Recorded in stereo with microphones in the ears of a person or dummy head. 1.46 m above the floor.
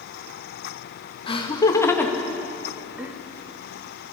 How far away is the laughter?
About 1.9 m.